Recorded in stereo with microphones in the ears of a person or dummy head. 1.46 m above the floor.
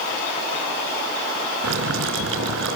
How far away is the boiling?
About 4.5 m.